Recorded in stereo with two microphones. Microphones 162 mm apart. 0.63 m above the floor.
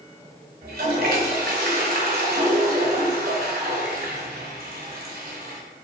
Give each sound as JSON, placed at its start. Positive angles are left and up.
{"t": 0.6, "sound": "a toilet flushing", "side_deg": -70, "distance_m": 1.7}